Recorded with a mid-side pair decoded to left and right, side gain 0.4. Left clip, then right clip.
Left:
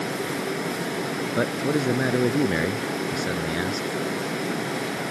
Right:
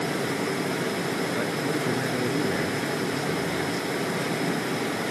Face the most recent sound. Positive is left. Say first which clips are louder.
# left 3 dB
turn(degrees=55)